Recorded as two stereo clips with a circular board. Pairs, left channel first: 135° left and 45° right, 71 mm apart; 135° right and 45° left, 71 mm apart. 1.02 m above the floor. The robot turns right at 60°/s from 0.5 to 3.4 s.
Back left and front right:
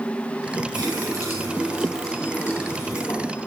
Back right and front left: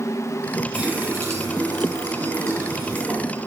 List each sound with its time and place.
0.7 s a running tap: 30° right, 4.5 m; by 3.5 s 130° left, 4.5 m